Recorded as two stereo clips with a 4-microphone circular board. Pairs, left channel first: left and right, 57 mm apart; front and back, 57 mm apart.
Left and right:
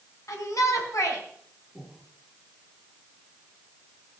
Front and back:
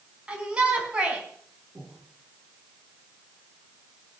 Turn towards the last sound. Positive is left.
turn(degrees=155)